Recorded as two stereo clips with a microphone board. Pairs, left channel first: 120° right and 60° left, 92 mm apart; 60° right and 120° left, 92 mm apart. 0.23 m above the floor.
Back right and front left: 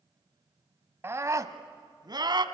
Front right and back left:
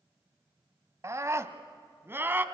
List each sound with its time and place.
1.0 s a scream: 100° left, 1.2 m; by 2.5 s 60° left, 1.7 m